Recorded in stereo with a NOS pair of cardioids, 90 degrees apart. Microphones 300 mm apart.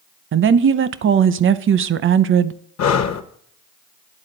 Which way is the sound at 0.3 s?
45° right.